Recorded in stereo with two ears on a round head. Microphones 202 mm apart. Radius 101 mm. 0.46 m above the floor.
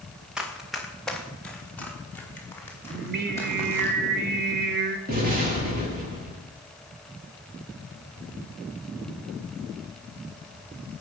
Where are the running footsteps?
5° right (ahead or behind), 3.5 m; by 3.9 s 15° left (ahead or behind), 8.5 m.